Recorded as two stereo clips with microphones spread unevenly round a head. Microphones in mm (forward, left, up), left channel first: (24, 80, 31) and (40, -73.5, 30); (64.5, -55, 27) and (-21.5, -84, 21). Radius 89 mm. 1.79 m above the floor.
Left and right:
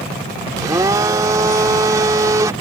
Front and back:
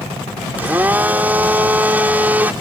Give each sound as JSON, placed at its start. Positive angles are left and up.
{"t": 0.6, "sound": "a blender", "azimuth_deg": -110}